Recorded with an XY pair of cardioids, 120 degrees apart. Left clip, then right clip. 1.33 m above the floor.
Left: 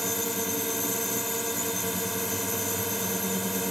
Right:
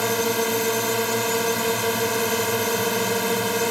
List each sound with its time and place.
0.0 s a drone: 55° right